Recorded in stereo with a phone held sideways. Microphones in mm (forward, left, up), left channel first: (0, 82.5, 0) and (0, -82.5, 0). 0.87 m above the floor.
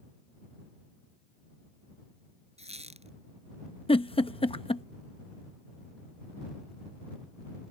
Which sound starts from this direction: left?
A giggle, at 3.9 s.